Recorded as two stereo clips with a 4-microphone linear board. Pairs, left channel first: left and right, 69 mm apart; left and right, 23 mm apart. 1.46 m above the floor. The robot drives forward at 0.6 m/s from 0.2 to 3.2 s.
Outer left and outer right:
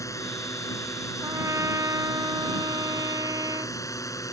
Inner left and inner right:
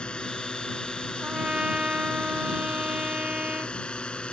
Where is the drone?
50° left (ahead or behind).